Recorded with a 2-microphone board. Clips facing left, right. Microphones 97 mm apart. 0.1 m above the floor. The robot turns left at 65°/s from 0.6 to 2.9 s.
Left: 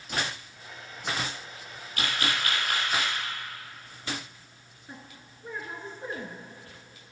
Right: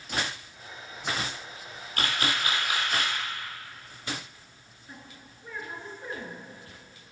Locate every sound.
2.0 s a camera shutter: 125° right, 1.9 m; by 3.1 s 175° left, 1.9 m
4.9 s a woman speaking: 20° left (ahead or behind), 1.6 m